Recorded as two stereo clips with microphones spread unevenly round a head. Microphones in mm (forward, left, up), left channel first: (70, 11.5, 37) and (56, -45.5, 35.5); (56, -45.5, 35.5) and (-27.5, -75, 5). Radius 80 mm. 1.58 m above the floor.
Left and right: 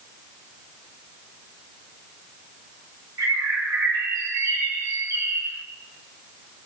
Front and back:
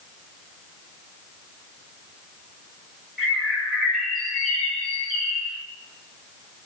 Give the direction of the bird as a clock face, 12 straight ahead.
2 o'clock.